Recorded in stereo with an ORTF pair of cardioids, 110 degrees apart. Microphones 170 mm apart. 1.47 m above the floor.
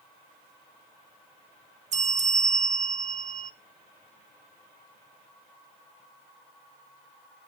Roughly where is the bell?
Ahead right.